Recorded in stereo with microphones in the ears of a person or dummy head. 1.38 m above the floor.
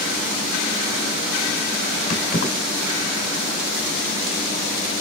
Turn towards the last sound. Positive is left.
turn(degrees=50)  # may be behind; listen again after turning